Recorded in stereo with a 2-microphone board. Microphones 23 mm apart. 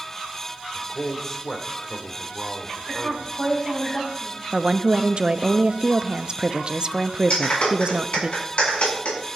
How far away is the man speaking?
About 1.9 m.